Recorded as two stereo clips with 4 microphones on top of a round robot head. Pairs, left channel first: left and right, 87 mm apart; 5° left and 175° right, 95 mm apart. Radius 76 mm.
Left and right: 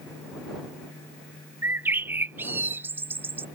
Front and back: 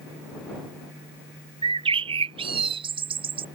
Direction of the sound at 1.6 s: 155° right.